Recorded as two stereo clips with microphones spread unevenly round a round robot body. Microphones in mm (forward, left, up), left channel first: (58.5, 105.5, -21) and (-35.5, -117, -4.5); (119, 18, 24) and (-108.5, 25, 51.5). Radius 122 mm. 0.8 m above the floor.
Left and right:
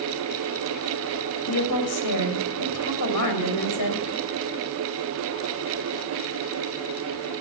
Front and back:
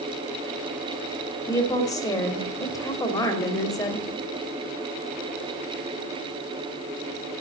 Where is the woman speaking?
75° left, 3.5 m.